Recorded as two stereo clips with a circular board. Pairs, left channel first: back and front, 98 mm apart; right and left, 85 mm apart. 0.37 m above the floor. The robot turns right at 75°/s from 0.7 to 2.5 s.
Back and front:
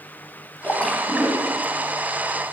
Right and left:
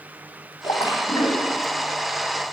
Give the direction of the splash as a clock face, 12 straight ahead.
4 o'clock.